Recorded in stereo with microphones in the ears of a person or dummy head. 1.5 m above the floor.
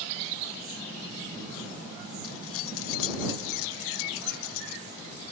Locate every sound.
2.2 s keys jangling: 65° left (ahead or behind); by 5.3 s 70° left (ahead or behind)